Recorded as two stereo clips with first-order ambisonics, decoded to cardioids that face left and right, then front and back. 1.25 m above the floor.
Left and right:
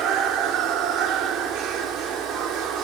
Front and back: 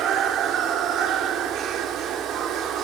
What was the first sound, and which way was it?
Running water, 130° right.